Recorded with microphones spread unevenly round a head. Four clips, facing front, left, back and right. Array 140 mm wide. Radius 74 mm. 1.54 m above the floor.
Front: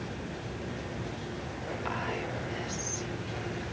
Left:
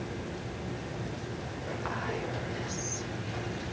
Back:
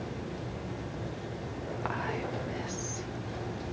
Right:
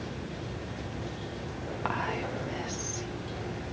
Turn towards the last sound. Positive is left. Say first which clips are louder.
# right 4 dB, back 1 dB
turn(degrees=-115)